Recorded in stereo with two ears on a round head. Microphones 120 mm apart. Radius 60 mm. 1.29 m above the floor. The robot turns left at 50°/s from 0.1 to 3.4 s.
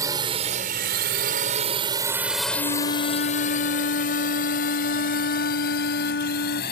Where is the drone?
25° right (ahead or behind); by 6.7 s 85° left.